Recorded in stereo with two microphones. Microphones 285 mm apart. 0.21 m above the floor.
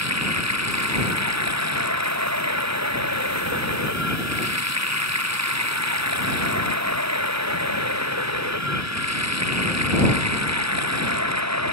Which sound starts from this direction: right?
Running water, at 0.0 s.